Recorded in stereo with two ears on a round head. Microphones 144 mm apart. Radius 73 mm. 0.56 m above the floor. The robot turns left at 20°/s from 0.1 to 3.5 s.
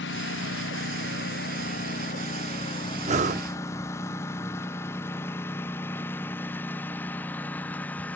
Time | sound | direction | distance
0.0 | a lawn mower | 90° left | ?
3.0 | breathing | 45° right (ahead or behind) | ?